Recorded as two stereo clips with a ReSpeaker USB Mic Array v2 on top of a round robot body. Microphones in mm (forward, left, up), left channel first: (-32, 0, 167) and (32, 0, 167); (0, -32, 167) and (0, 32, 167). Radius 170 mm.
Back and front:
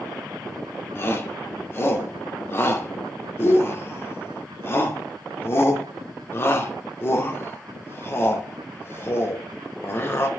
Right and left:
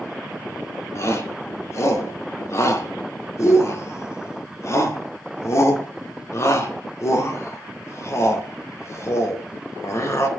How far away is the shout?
About 2 m.